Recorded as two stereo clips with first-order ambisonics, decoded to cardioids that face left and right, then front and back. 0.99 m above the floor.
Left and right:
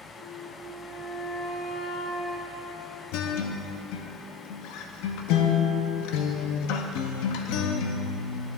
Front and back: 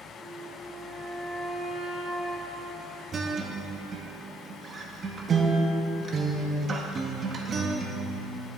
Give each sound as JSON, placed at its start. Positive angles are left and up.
{"t": 0.2, "sound": "a flute", "azimuth_deg": 80, "distance_m": 1.0}
{"t": 3.1, "sound": "a guitar", "azimuth_deg": 110, "distance_m": 0.6}